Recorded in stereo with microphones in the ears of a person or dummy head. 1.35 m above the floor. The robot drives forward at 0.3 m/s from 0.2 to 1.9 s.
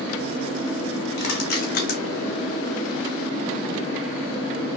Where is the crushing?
65° left (ahead or behind), 1.0 m; by 2.0 s 55° left (ahead or behind), 1.1 m.